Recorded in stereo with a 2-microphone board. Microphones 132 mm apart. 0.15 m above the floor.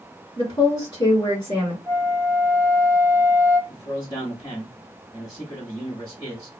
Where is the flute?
25° left (ahead or behind), 0.7 m.